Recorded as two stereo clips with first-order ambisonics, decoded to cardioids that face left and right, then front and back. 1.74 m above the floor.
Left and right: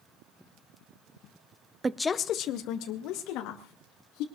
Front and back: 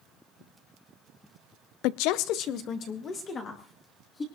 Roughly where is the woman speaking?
Ahead.